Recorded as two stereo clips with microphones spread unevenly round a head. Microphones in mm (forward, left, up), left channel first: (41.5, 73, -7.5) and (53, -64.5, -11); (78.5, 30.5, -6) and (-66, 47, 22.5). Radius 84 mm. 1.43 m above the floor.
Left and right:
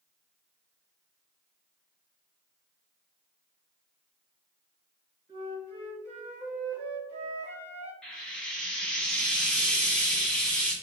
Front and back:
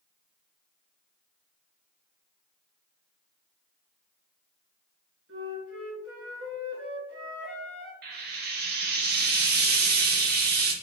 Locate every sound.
5.3 s a flute: 165° right, 1.5 m
8.0 s frying: straight behind, 0.7 m